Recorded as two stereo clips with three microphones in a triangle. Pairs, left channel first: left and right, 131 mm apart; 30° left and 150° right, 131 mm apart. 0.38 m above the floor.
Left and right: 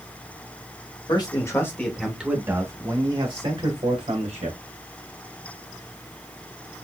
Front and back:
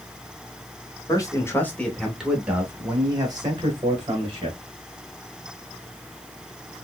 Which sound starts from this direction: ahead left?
A man speaking, at 1.1 s.